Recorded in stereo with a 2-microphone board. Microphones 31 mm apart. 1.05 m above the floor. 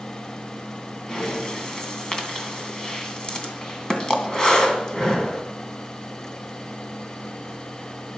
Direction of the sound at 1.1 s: 20° left (ahead or behind).